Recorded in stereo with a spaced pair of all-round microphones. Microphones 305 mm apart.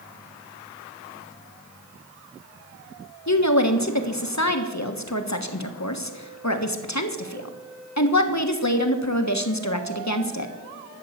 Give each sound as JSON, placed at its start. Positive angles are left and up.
{"t": 3.3, "sound": "a woman speaking", "side_deg": 60, "distance_m": 1.4}